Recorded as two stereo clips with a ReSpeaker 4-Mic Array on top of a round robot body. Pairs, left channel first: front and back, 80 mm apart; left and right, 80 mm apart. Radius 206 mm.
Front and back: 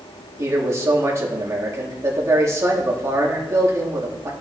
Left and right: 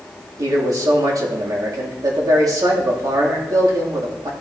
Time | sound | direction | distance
0.4 | a man speaking | 130° right | 2.5 m